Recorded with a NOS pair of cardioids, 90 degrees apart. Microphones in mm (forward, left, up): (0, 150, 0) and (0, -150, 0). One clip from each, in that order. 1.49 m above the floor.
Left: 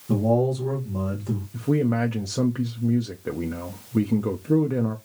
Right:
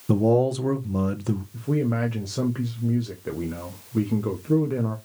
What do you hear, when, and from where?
0.1 s a man speaking: 55° right, 1.1 m
1.5 s a man speaking: 10° left, 0.6 m